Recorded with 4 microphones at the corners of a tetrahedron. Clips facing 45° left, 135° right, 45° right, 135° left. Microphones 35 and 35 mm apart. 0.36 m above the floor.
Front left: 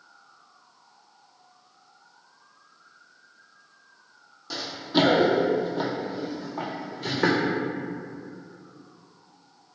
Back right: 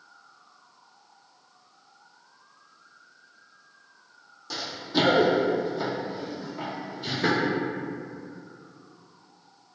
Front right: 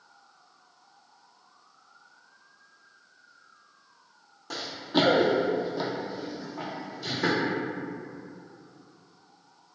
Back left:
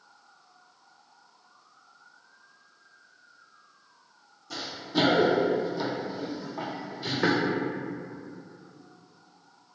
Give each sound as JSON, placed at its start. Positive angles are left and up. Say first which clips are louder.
{"t": 4.5, "sound": "running footsteps", "louder": "front left 3 dB, front right 3 dB", "azimuth_deg": -40, "distance_m": 0.8}